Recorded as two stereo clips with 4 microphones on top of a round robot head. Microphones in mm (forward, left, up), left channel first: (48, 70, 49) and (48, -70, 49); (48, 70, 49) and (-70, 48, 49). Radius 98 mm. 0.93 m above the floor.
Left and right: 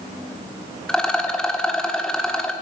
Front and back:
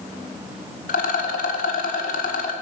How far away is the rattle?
About 1.2 m.